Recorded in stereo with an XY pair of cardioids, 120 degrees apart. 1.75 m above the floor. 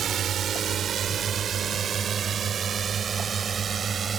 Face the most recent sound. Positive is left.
turn(degrees=-35)